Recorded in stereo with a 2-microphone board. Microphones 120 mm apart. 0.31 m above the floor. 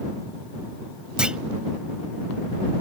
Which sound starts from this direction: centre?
A clunk, at 1.2 s.